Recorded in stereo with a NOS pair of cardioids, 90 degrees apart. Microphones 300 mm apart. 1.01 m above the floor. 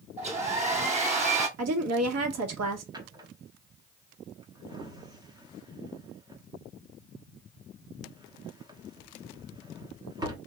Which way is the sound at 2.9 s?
15° right.